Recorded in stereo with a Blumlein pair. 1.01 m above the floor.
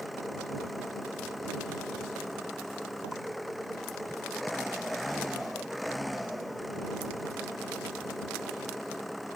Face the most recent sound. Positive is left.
turn(degrees=5)